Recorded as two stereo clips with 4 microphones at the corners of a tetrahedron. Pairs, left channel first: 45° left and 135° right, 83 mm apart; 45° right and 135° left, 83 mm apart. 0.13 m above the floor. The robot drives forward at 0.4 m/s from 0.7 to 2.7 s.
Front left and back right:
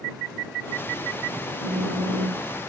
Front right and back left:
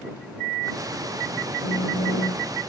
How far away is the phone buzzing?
About 1.4 m.